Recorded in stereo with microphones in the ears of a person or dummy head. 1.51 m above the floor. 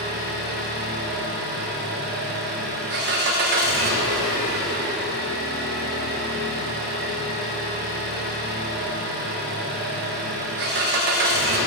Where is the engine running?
50° right (ahead or behind), 0.8 m.